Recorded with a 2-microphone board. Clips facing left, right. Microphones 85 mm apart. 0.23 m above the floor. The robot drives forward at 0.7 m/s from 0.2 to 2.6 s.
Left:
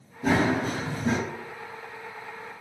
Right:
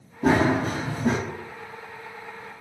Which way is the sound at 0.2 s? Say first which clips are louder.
Right 3 dB; 60° right (ahead or behind).